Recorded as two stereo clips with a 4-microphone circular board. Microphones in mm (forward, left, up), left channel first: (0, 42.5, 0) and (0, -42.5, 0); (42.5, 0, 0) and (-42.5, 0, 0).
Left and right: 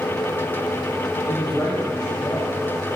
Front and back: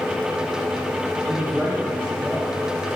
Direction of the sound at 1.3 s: 75° left.